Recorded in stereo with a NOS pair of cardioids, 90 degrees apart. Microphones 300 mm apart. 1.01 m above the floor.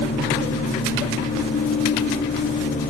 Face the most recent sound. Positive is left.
turn(degrees=25)